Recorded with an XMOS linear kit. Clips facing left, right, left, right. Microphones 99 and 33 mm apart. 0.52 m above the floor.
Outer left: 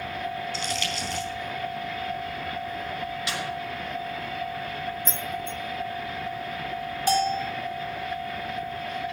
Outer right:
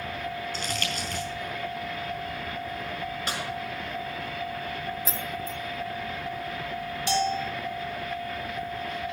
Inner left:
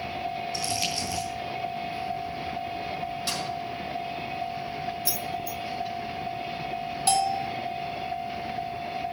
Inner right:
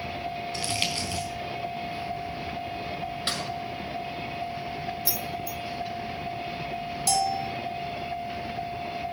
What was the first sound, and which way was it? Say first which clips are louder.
Crumpling: outer left 2 dB, inner right 3 dB; 50° right (ahead or behind).